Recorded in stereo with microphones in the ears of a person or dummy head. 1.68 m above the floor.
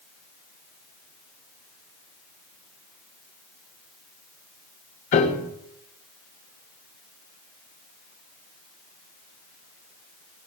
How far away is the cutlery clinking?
No cutlery clinking in this recording.